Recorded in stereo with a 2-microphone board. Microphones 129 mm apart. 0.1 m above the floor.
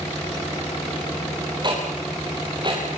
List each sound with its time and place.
1.6 s ticking: 35° right (ahead or behind), 9 m